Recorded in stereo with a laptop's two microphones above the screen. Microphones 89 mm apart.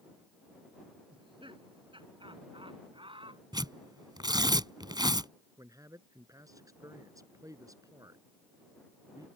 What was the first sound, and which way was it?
Laughter, 70° right (ahead or behind).